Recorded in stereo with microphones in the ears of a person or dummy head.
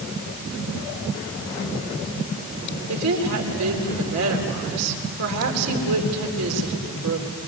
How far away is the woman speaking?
About 4 m.